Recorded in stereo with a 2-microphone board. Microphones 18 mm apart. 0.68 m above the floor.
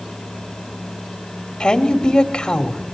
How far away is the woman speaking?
About 2 m.